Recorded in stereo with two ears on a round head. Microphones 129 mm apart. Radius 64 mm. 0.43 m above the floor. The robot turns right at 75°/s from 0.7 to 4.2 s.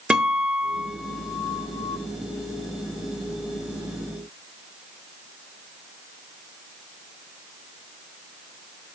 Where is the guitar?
5° right (ahead or behind), 0.5 m; by 2.0 s 20° left (ahead or behind), 0.5 m.